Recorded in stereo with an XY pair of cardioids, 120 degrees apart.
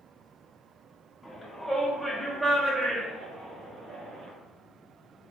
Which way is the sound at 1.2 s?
15° left.